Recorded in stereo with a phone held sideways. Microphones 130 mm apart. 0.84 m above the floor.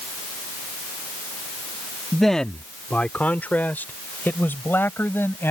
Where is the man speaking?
Centre (ahead or behind); by 5.5 s 15° left (ahead or behind).